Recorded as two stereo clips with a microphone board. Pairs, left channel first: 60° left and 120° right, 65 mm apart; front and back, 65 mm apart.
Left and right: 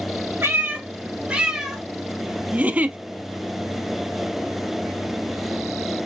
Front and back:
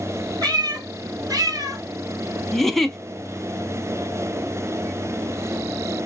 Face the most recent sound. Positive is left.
turn(degrees=-85)